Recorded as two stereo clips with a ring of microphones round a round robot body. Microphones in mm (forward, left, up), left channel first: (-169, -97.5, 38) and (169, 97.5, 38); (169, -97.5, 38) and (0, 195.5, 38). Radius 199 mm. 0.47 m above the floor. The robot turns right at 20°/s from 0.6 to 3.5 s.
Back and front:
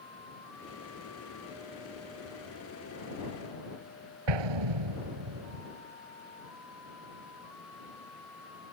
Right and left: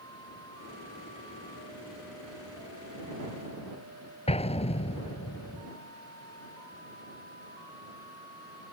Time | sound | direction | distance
4.3 | an explosion | 10° left | ?